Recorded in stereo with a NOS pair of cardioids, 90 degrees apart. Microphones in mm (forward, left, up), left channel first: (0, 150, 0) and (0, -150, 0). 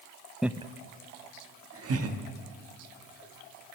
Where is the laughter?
Straight ahead, 0.5 m; by 3.8 s 60° right, 3 m.